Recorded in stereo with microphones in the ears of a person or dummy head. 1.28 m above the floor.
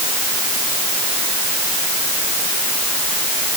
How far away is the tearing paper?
I don't hear tearing paper.